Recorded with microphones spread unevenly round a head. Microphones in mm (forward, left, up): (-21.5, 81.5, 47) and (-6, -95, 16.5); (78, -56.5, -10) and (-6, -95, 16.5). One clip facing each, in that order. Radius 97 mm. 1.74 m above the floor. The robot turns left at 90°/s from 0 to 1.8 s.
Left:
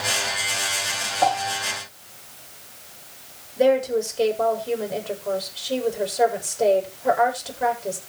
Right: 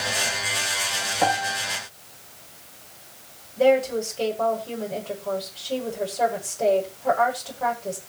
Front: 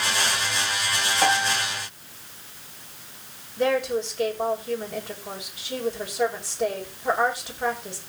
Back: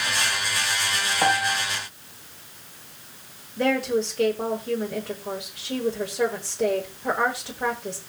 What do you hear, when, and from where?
1.2 s a piano: 105° right, 7 m; by 1.6 s 140° right, 7 m
3.6 s a woman speaking: 170° left, 7.5 m